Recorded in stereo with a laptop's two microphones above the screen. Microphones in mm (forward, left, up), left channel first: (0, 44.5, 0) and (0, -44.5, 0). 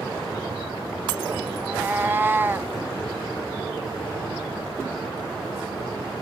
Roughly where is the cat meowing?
Right.